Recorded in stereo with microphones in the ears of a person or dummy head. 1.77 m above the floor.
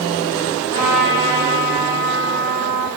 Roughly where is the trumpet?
Left.